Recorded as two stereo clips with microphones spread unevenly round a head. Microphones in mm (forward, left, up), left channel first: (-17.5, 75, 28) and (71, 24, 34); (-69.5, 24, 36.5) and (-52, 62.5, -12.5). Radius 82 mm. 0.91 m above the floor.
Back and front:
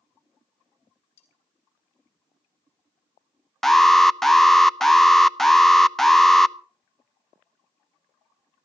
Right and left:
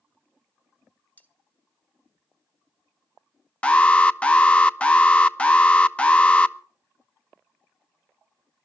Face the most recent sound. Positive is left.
turn(degrees=70)